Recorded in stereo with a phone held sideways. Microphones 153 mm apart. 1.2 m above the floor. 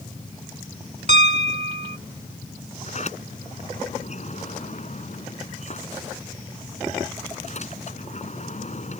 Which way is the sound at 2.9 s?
50° left (ahead or behind).